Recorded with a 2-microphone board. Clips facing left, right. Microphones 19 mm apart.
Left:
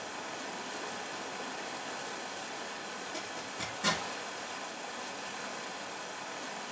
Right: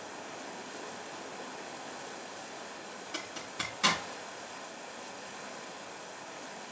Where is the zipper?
65° right (ahead or behind), 5 m.